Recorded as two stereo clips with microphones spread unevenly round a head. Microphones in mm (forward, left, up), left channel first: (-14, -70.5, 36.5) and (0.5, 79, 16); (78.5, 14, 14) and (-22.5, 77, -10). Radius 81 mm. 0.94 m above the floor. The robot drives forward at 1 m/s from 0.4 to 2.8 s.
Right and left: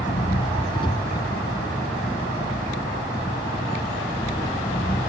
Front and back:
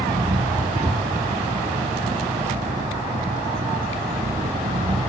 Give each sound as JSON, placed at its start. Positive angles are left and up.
{"t": 0.0, "sound": "an engine running", "azimuth_deg": -155}